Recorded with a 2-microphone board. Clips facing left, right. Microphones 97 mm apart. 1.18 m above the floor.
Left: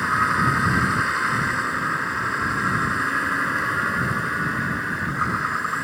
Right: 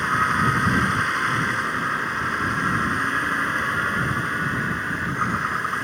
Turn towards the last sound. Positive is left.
turn(degrees=5)  # may be behind; listen again after turning